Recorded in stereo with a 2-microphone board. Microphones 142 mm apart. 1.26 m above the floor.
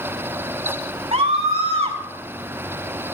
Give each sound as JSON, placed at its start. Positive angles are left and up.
{"t": 1.1, "sound": "a scream", "side_deg": -55, "distance_m": 5.0}